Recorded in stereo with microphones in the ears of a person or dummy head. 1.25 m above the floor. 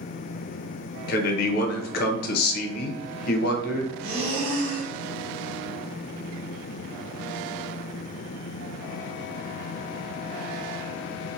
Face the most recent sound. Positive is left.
turn(degrees=-70)  # may be behind; listen again after turning